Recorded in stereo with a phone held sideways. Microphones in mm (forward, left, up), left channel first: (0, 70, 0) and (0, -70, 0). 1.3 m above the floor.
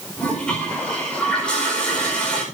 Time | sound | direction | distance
0.2 | a toilet flushing | 10° left (ahead or behind) | 5 m